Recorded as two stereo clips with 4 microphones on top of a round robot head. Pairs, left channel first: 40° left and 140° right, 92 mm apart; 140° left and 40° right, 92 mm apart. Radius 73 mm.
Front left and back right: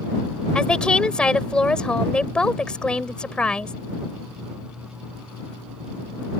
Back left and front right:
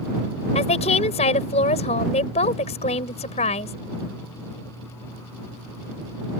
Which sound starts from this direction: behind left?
A woman speaking, at 0.6 s.